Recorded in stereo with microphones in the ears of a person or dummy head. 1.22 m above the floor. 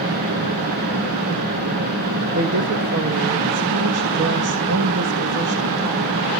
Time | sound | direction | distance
0.0 | a fan | 50° right (ahead or behind) | 5.5 m
2.4 | a woman speaking | 70° right (ahead or behind) | 1.9 m